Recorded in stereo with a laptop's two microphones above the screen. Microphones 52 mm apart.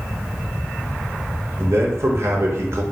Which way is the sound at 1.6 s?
55° right (ahead or behind).